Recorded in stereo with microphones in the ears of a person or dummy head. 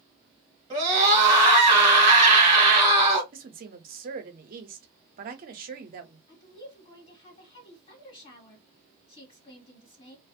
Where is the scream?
25° right (ahead or behind), 1.4 m.